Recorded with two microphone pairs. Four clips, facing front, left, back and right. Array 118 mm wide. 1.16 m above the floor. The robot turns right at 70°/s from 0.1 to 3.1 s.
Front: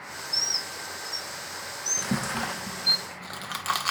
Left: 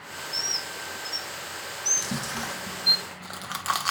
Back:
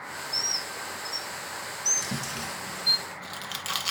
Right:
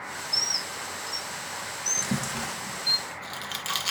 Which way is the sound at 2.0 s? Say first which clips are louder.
Right 2 dB, front 8 dB; 25° right.